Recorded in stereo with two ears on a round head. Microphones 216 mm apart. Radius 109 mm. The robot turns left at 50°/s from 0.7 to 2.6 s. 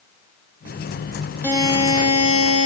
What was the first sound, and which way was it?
A buzzer, 170° left.